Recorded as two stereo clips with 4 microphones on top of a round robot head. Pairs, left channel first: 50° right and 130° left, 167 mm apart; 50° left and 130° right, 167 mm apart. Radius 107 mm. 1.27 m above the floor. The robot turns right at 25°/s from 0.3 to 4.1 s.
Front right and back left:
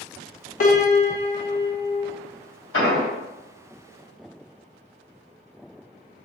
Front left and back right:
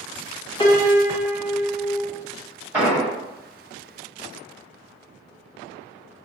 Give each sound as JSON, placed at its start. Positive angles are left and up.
{"t": 0.6, "sound": "a piano", "azimuth_deg": -15, "distance_m": 0.9}
{"t": 2.7, "sound": "an explosion", "azimuth_deg": -50, "distance_m": 1.6}